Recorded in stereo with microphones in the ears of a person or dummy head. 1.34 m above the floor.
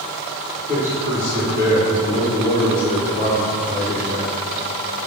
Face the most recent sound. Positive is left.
turn(degrees=20)  # may be behind; listen again after turning